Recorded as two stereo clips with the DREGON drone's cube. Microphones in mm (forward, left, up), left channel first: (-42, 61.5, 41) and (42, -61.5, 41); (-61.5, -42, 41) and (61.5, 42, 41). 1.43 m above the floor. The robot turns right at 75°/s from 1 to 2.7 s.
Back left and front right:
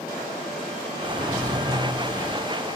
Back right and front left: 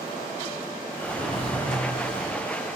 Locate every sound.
1.0 s a drawer: 10° left, 1.9 m; by 2.4 s 115° left, 1.9 m